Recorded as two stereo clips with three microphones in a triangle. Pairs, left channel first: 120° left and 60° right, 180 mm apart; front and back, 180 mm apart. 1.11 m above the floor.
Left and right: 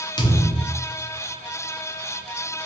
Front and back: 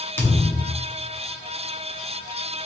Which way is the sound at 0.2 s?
70° left.